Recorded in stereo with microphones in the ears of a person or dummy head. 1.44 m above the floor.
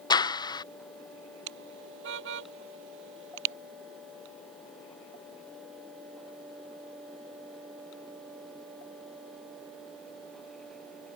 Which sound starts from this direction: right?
A car horn, at 1.5 s.